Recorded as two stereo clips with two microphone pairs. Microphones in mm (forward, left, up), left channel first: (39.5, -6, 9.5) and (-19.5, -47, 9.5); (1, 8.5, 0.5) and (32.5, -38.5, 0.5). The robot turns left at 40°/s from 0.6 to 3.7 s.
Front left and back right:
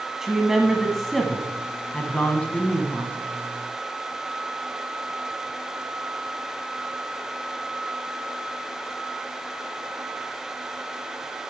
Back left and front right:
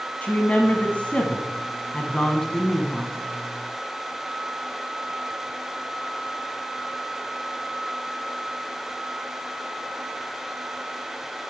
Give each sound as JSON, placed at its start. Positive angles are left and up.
{"t": 0.2, "sound": "a woman speaking", "azimuth_deg": 140, "distance_m": 1.2}